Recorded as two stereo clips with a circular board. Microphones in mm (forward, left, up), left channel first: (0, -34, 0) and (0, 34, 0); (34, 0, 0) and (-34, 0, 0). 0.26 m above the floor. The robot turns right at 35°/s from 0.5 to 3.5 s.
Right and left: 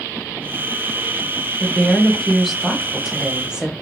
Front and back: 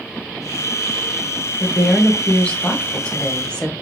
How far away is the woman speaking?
About 1.1 m.